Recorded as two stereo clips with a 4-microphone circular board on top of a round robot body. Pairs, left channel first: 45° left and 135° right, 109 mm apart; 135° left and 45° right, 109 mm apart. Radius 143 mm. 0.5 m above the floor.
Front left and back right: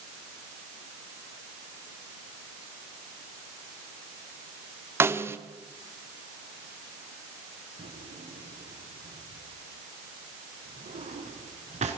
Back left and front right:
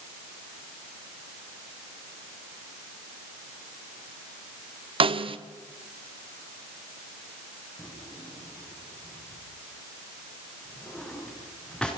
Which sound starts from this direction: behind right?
A drawer, at 7.8 s.